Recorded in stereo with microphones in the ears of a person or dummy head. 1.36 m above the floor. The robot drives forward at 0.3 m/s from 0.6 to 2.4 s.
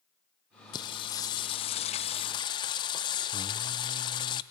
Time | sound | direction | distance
0.7 | singing | 20° left (ahead or behind) | 0.6 m